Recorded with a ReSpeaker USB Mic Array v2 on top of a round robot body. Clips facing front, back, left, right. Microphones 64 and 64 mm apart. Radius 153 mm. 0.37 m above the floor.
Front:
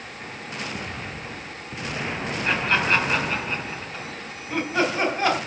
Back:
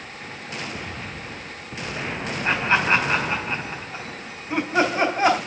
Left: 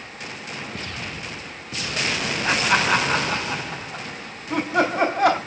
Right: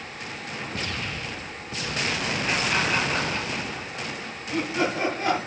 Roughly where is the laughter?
Left.